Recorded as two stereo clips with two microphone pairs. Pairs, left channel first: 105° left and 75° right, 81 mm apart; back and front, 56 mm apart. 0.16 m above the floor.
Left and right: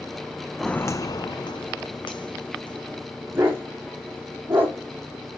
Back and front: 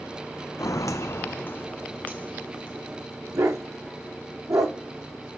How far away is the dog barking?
About 4 m.